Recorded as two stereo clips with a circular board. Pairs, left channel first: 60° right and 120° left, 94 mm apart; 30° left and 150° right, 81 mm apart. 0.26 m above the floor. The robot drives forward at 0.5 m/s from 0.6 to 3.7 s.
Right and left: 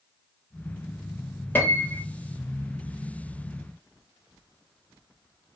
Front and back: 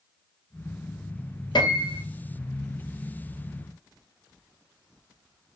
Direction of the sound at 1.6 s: 10° left.